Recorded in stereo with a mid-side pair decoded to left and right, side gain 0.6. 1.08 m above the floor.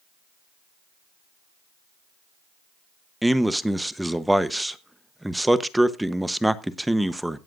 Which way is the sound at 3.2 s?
5° right.